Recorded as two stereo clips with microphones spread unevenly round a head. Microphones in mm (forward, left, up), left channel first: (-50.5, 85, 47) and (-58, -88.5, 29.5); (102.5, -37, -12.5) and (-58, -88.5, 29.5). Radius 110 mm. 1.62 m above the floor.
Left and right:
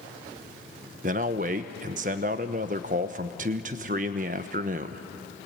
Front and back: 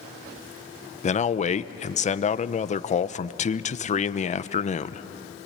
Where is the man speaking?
35° right, 0.9 m.